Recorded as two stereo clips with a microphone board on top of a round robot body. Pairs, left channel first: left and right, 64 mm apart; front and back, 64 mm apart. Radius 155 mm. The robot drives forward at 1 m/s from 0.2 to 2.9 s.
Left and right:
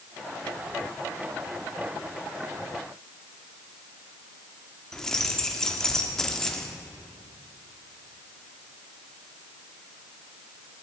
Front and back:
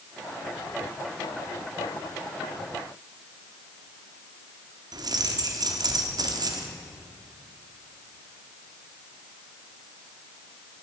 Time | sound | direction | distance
4.9 | keys jangling | 175° left | 1.4 m